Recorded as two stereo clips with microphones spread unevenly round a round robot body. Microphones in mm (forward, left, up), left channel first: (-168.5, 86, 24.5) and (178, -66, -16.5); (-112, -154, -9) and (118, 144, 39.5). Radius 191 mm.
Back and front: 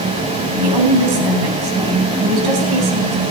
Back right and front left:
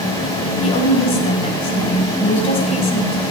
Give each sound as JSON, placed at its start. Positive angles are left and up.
{"t": 0.6, "sound": "a woman speaking", "azimuth_deg": -55, "distance_m": 3.0}